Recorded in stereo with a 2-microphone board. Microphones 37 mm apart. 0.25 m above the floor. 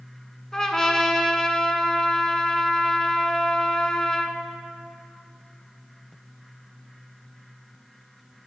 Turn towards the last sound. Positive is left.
turn(degrees=15)  # may be behind; listen again after turning